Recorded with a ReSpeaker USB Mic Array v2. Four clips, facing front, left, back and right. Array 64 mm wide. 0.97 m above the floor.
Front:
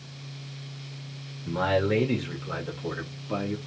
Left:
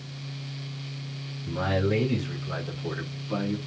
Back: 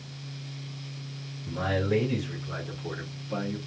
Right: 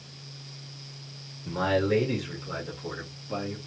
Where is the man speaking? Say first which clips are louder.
Right 1 dB, front 4 dB; 35° right, 2 m; by 3.6 s 5° left, 2.0 m.